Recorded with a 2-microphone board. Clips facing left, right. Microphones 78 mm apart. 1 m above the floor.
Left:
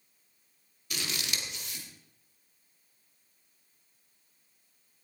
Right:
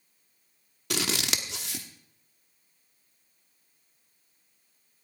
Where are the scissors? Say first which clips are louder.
Right 7 dB; 80° right, 1.1 m.